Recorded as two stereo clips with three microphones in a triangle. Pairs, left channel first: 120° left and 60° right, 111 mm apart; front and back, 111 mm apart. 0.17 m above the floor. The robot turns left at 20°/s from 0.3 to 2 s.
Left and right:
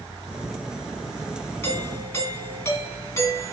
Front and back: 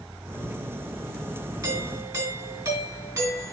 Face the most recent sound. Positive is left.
turn(degrees=155)